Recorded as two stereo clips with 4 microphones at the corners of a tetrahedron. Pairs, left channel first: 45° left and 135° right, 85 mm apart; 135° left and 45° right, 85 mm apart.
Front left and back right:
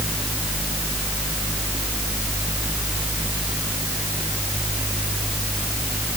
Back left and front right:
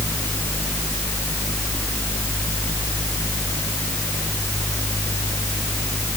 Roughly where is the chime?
No chime in this recording.